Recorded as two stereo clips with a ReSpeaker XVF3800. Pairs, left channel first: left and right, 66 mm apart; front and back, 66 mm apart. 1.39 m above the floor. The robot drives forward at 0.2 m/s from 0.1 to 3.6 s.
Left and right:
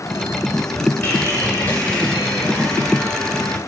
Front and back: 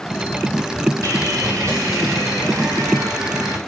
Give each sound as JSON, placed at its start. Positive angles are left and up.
{"t": 1.0, "sound": "sawing", "azimuth_deg": 145, "distance_m": 4.5}